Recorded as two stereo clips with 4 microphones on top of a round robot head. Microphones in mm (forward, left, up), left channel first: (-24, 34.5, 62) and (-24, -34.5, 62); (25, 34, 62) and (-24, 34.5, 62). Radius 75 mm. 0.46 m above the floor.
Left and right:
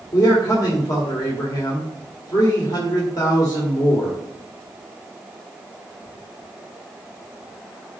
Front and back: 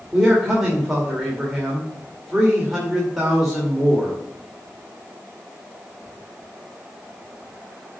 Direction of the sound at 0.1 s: 90° left.